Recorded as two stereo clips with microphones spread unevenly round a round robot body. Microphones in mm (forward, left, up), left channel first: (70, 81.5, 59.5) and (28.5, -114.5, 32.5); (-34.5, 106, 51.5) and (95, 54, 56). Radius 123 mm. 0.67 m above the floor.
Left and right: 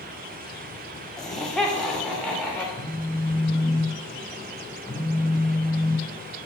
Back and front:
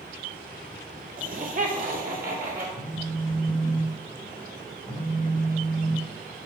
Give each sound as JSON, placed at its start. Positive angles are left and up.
{"t": 1.2, "sound": "laughter", "azimuth_deg": -15, "distance_m": 1.7}
{"t": 2.8, "sound": "a phone buzzing", "azimuth_deg": -175, "distance_m": 2.5}